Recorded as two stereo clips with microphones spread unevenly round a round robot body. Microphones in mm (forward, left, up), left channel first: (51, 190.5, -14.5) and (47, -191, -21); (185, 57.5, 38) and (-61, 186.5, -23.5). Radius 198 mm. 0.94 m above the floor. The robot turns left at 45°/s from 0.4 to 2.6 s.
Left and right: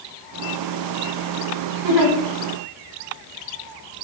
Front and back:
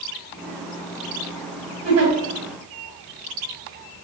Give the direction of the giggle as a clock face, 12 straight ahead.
5 o'clock.